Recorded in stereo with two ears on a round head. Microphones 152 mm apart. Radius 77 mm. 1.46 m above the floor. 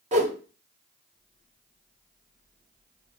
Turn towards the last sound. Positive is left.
turn(degrees=-45)  # may be behind; listen again after turning